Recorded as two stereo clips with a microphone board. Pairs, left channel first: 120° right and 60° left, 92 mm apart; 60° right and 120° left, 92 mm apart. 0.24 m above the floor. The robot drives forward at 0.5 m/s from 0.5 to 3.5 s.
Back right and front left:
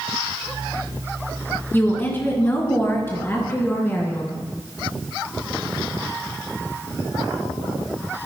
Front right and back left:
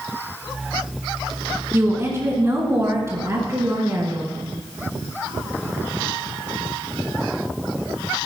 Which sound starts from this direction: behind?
A woman speaking, at 1.7 s.